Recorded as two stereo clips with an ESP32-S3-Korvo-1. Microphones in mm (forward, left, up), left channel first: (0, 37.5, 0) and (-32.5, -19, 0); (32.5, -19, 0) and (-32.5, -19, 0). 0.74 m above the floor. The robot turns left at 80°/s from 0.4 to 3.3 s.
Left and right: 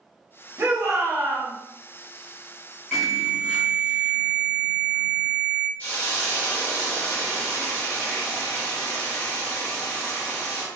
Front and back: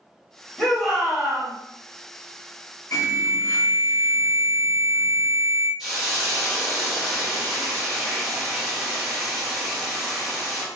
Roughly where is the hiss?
Left.